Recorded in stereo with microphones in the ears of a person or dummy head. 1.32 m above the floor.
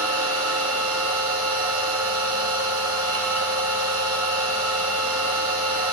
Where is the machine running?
75° right (ahead or behind), 2.5 m.